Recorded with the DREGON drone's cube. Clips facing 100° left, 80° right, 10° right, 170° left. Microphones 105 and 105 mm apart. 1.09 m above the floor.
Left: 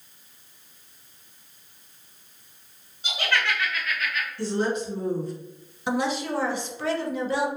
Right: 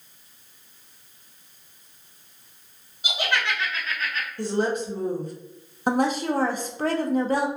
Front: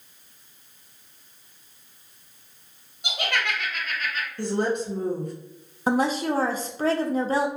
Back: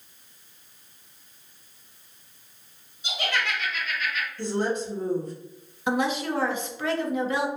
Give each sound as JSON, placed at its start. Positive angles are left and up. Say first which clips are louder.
{"t": 3.0, "sound": "laughter", "louder": "even, front 1 dB", "azimuth_deg": 0, "distance_m": 1.3}
{"t": 4.4, "sound": "a woman speaking", "louder": "right 1 dB, front 2 dB", "azimuth_deg": -40, "distance_m": 1.2}
{"t": 5.9, "sound": "a woman speaking", "louder": "right 3 dB, front 3 dB", "azimuth_deg": -55, "distance_m": 0.6}